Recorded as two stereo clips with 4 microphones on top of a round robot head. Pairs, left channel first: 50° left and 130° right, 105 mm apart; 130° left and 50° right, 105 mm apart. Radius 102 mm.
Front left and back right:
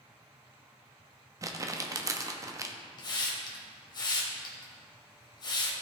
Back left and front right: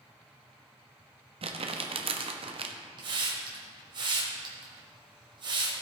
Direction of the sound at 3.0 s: Straight ahead.